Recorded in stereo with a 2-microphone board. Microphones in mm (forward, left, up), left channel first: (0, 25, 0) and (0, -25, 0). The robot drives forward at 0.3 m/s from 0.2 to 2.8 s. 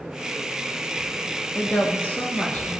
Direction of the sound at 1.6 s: 40° left (ahead or behind).